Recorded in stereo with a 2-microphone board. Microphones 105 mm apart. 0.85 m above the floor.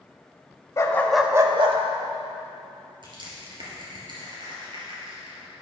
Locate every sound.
0.8 s a dog barking: 30° left (ahead or behind), 1.1 m; by 1.8 s 60° right (ahead or behind), 1.0 m
3.0 s crushing: 50° right (ahead or behind), 3 m